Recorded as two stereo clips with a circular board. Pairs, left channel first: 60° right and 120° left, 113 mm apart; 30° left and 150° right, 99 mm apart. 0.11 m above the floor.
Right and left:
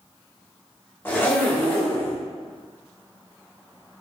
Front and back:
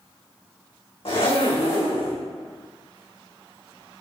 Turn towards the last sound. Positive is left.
turn(degrees=10)